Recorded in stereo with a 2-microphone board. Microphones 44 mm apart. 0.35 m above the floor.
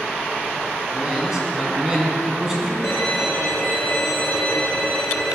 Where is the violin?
80° left, 5 m.